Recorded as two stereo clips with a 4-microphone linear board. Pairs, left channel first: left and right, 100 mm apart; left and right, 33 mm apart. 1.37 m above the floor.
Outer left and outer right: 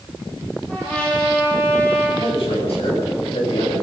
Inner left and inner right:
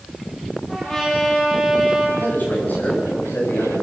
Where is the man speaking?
70° left (ahead or behind), 9 m.